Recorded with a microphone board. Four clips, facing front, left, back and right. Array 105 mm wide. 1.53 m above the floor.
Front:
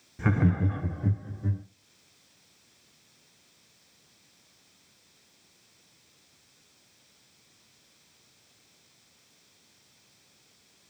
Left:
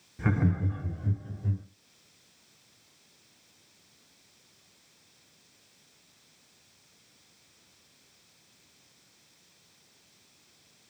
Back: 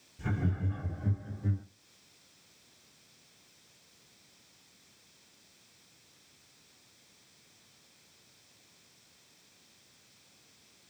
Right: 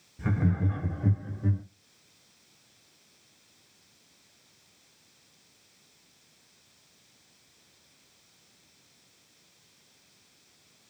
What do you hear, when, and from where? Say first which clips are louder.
0.2 s laughter: left 1 dB, front 9 dB; 35° left, 0.6 m; by 1.6 s 80° right, 1.1 m